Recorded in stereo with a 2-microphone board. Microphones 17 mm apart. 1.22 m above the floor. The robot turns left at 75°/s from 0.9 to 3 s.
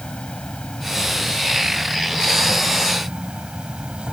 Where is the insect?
85° left; by 4.1 s 70° right.